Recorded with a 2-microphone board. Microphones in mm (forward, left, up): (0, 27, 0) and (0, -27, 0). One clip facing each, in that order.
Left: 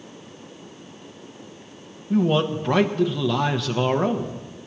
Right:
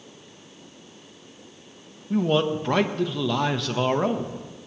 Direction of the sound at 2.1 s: Centre (ahead or behind).